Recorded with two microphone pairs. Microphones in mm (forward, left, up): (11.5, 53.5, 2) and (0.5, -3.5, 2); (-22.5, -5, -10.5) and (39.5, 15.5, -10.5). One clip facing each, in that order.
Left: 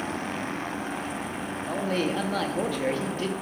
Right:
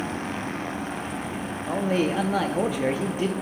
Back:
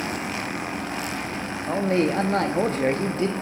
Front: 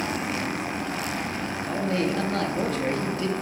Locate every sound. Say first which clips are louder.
1.7 s a man speaking: right 4 dB, back 5 dB; 175° right, 0.5 m